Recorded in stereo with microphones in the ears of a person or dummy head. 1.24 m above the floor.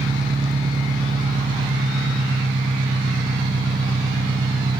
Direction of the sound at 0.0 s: 30° right (ahead or behind).